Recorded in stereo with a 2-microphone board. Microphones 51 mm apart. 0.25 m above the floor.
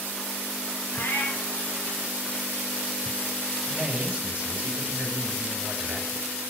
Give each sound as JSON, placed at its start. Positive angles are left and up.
{"t": 0.9, "sound": "a cat meowing", "side_deg": 55, "distance_m": 1.1}
{"t": 3.7, "sound": "a man speaking", "side_deg": -30, "distance_m": 1.3}